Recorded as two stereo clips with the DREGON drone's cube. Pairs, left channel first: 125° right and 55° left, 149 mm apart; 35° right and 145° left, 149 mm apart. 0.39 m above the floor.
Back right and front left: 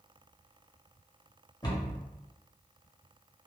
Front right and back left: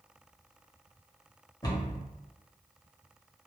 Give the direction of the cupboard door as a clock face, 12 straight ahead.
3 o'clock.